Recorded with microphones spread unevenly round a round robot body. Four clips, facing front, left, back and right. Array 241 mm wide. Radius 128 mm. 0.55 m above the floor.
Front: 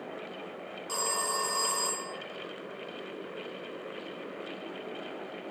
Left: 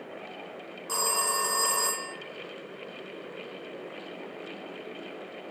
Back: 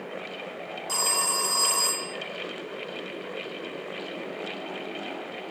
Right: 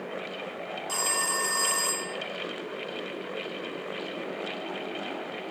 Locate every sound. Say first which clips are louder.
0.9 s a phone ringing: left 3 dB, back 2 dB; 90° left, 0.5 m